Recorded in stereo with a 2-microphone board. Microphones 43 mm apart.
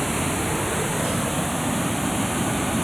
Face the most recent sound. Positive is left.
turn(degrees=0)  # may be behind; listen again after turning